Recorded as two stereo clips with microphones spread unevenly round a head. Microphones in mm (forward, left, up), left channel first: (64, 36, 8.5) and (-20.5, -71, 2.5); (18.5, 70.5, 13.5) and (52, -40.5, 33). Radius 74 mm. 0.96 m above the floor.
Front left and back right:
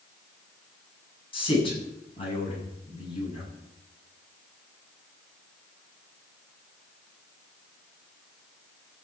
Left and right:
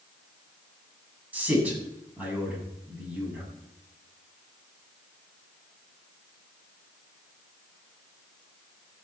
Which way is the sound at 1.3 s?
Straight ahead.